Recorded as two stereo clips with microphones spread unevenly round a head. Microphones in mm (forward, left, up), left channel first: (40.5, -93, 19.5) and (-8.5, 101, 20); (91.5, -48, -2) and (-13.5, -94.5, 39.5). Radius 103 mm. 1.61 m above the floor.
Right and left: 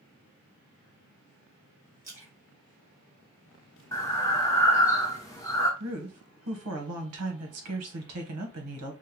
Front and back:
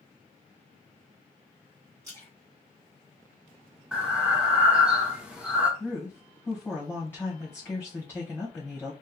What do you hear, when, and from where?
2.0 s a splash: 175° left, 1.2 m
3.9 s breathing: 135° right, 0.6 m
5.8 s a woman speaking: 115° left, 1.0 m